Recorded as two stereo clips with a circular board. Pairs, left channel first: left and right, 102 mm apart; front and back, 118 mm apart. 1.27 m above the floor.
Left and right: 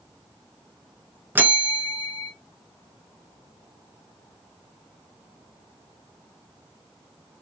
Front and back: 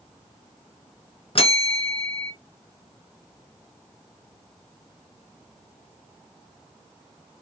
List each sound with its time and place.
1.4 s a bell: 25° right, 0.8 m